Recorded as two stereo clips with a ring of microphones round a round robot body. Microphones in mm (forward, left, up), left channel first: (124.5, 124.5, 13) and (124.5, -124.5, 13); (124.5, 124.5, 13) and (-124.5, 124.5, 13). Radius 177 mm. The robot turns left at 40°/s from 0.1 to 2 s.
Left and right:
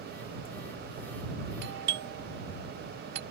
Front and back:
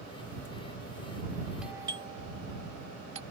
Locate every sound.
1.6 s a doorbell: 90° right; by 3.2 s 110° right